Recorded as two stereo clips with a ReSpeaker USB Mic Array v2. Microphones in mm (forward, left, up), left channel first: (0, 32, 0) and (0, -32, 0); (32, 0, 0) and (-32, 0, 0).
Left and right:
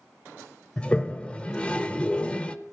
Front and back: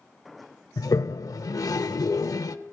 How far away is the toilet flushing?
About 0.6 m.